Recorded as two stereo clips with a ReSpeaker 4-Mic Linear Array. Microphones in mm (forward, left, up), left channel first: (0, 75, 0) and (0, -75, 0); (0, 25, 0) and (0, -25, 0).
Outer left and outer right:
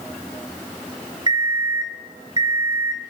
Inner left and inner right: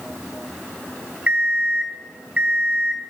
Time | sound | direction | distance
1.3 | an alarm clock | 30° right (ahead or behind) | 1.7 m